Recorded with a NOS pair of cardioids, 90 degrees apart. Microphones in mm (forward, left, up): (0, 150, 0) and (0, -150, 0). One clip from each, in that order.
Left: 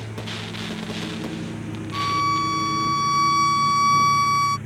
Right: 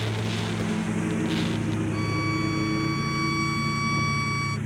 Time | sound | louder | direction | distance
0.0 | a lawn mower | right 2 dB | 45° right | ?
1.9 | a violin | left 11 dB | 30° left | ?